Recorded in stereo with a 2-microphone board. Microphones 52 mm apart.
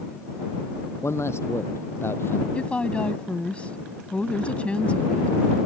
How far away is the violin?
No violin in this recording.